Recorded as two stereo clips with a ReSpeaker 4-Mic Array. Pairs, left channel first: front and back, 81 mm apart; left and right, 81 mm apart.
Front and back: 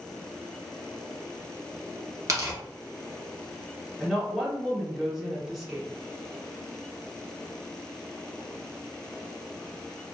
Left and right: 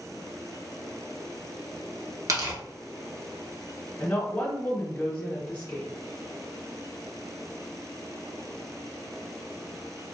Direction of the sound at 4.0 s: 95° left.